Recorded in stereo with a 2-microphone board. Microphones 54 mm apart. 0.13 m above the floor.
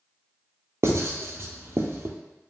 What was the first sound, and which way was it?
Writing, 55° right (ahead or behind).